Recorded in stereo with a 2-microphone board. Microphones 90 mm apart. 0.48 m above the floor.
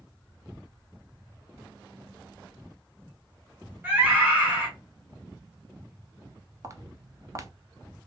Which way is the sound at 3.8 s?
20° right (ahead or behind).